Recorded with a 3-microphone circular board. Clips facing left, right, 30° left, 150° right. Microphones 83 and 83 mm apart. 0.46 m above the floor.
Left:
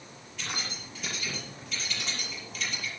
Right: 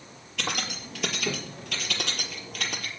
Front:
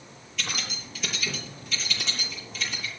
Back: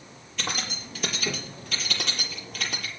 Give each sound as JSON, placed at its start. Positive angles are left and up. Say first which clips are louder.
{"t": 0.4, "sound": "keys jangling", "louder": "right 6 dB, back 2 dB", "azimuth_deg": -105, "distance_m": 6.5}